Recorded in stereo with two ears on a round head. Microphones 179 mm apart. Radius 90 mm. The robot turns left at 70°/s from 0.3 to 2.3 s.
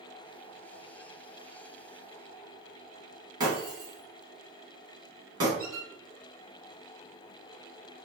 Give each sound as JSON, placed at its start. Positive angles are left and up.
{"t": 3.4, "sound": "breaking glass", "side_deg": -20, "distance_m": 1.4}
{"t": 5.6, "sound": "a squeak", "side_deg": -25, "distance_m": 1.7}